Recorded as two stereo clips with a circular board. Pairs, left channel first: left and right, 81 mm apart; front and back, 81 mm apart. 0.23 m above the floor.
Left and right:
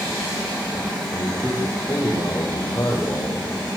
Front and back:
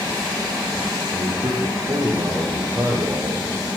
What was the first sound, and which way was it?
A man speaking, 155° left.